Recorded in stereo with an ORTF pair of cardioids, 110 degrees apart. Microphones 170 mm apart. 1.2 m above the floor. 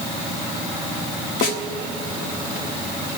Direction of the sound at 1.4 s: 70° left.